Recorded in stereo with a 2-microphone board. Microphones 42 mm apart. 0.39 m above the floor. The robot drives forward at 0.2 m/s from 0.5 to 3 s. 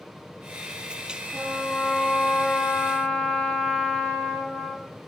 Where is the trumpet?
10° left (ahead or behind), 4 m.